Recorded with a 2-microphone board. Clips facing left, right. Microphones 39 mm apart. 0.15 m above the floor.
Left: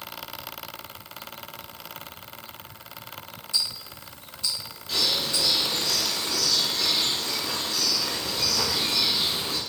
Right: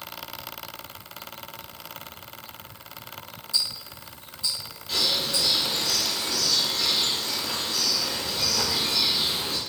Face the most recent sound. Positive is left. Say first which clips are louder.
# even
turn(degrees=0)  # may be behind; listen again after turning